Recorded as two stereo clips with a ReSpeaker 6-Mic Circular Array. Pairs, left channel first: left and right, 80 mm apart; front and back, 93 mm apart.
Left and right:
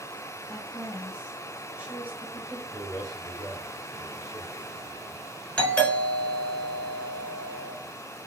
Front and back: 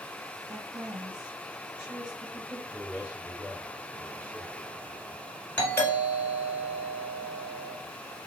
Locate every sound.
0.5 s a woman speaking: 150° right, 1.6 m
2.7 s a man speaking: 120° right, 3 m
5.6 s a doorbell: 35° left, 1.4 m